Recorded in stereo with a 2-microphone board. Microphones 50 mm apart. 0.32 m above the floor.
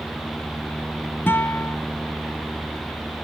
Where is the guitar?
50° left (ahead or behind).